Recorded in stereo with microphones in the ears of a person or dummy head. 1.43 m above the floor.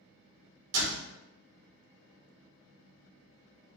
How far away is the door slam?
About 1.1 m.